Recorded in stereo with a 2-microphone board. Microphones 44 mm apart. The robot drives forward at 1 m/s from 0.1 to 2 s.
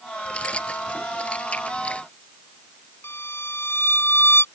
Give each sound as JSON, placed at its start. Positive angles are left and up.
{"t": 0.2, "sound": "keys jangling", "side_deg": 25}
{"t": 3.0, "sound": "a violin", "side_deg": 65}